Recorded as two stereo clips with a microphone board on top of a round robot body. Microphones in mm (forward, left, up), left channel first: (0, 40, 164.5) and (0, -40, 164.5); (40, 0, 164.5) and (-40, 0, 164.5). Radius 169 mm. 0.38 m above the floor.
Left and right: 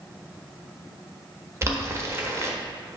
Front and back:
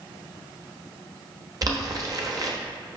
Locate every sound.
1.6 s boiling: 140° right, 1.3 m